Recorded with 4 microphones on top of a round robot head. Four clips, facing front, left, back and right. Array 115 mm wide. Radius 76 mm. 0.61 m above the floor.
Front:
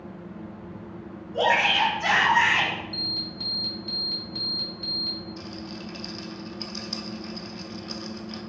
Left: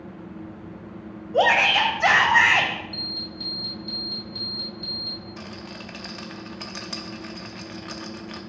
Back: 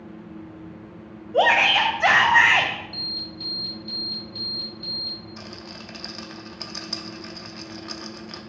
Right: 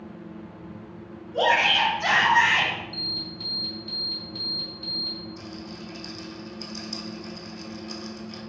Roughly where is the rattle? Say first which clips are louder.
Left 1 dB, front 2 dB; behind left.